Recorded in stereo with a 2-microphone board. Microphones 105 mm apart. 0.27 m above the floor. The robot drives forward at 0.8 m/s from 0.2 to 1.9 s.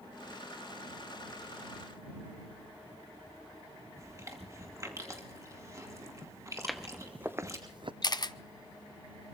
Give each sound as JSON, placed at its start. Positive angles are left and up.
{"t": 4.0, "sound": "chewing", "side_deg": -30, "distance_m": 2.5}
{"t": 6.6, "sound": "footsteps", "side_deg": 5, "distance_m": 0.9}
{"t": 8.0, "sound": "a camera shutter", "side_deg": 40, "distance_m": 0.5}